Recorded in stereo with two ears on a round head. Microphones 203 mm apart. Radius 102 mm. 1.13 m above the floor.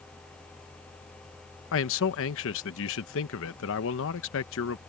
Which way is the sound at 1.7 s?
60° left (ahead or behind).